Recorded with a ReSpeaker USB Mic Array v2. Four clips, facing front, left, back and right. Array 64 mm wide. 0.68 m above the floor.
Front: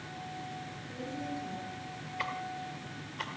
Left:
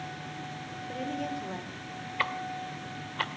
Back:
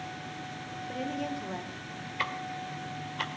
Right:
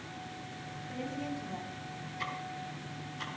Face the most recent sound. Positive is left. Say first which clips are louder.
# left 7 dB, back 3 dB
turn(degrees=100)